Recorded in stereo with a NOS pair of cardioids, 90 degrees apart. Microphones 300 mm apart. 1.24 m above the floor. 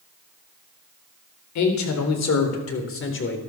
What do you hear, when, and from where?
1.6 s a man speaking: 70° left, 3.5 m; by 3.4 s 35° left, 3.5 m